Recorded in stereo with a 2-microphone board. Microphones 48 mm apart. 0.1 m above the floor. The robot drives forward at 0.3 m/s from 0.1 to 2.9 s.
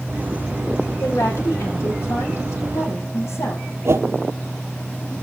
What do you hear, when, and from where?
1.0 s a woman speaking: 60° left (ahead or behind), 3.5 m; by 3.6 s 55° left (ahead or behind), 4 m
3.9 s a whoosh: 65° right (ahead or behind), 0.6 m